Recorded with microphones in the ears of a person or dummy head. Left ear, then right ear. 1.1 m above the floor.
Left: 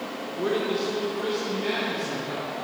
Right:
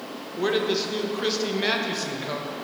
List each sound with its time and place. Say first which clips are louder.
0.4 s a man speaking: right 2 dB; 25° right (ahead or behind), 1.3 m; by 2.5 s 65° right (ahead or behind), 1.4 m